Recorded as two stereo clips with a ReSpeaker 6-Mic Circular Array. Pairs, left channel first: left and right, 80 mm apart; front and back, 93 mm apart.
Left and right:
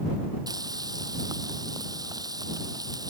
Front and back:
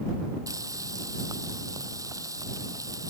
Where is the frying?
130° right.